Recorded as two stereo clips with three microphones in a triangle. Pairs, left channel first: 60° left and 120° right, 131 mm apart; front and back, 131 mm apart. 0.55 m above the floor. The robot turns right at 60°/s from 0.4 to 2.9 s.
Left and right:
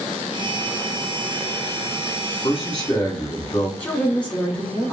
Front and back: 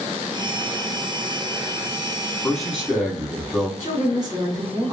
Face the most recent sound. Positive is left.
turn(degrees=135)